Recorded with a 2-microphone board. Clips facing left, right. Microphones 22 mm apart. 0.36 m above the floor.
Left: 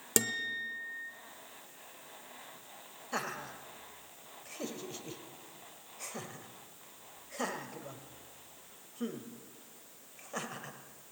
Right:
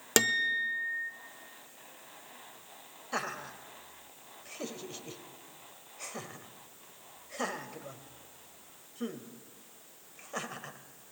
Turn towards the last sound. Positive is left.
turn(degrees=-10)  # may be behind; listen again after turning